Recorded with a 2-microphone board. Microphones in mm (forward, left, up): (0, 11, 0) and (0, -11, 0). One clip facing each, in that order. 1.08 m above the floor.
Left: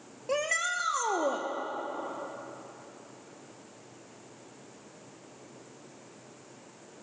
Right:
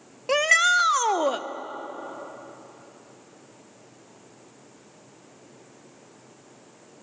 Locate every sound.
0.3 s a shout: 55° right (ahead or behind), 0.8 m